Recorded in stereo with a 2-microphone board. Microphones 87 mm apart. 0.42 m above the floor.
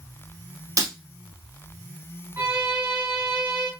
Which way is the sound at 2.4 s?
30° right (ahead or behind).